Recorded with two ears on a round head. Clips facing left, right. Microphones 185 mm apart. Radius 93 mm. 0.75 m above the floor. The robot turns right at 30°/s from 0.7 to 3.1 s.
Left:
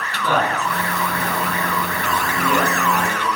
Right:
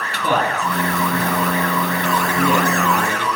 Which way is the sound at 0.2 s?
15° right (ahead or behind).